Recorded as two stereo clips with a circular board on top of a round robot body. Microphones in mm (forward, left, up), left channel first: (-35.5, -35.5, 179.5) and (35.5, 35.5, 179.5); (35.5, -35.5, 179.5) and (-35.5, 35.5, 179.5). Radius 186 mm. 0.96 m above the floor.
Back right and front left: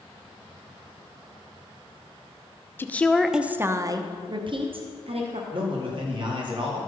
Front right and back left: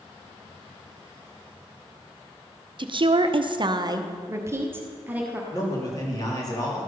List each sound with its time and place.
2.8 s a woman speaking: 160° left, 0.9 m; by 5.4 s 60° left, 1.6 m
5.5 s a man speaking: 10° left, 2.5 m